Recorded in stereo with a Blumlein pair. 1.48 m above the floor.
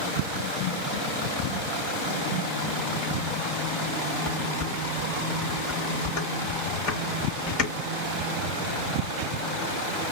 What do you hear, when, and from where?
4.2 s dishes clattering: 40° left, 4 m